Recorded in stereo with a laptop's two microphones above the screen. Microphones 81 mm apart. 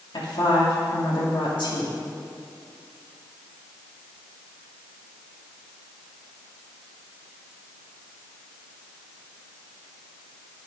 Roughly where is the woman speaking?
Left.